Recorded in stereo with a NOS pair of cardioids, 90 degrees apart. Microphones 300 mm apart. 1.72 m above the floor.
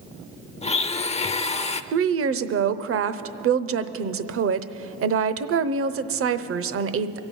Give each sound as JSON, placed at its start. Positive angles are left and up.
{"t": 0.6, "sound": "a blender", "azimuth_deg": 20, "distance_m": 0.5}
{"t": 1.9, "sound": "a woman speaking", "azimuth_deg": -50, "distance_m": 0.8}